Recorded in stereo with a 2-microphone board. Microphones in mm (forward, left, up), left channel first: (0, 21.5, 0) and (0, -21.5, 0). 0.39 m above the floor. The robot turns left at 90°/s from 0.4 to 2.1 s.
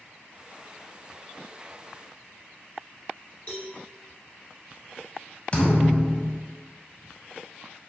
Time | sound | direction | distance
3.5 | a cowbell | 30° left (ahead or behind) | 1.0 m
5.5 | a thud | 35° left (ahead or behind) | 0.7 m